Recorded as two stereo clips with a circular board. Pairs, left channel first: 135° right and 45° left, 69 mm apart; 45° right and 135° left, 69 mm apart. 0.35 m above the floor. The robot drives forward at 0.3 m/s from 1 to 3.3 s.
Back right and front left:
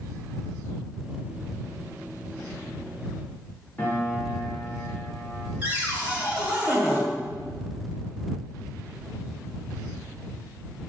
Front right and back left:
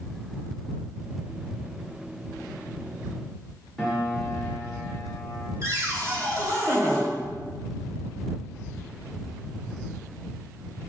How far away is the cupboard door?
About 1.0 m.